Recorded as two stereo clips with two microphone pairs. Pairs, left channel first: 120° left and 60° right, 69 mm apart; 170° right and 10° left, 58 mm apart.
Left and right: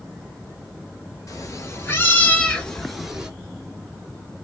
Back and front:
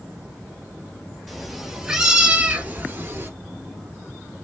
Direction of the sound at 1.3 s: 100° left.